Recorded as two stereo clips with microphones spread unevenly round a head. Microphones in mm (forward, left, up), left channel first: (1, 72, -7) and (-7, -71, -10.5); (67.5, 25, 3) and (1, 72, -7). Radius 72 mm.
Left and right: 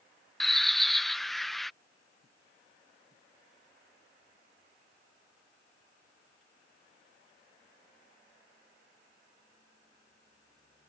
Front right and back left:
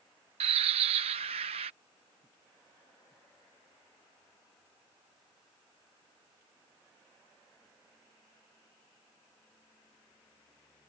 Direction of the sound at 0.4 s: 175° left.